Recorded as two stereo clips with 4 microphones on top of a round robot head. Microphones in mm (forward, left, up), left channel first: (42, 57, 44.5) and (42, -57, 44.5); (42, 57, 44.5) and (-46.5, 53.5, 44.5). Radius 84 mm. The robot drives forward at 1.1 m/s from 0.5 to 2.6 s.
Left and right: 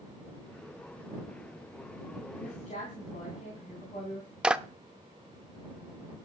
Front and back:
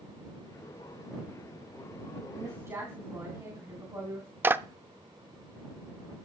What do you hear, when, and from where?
2.3 s a woman speaking: 120° left, 3.5 m; by 4.3 s 125° left, 3.5 m
4.4 s a clap: 160° right, 0.6 m